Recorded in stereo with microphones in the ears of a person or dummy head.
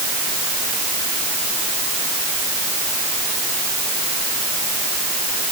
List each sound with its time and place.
Only background noise.